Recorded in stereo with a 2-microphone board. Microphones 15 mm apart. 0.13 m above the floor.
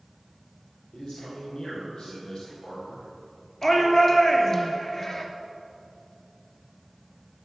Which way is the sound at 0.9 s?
70° left (ahead or behind).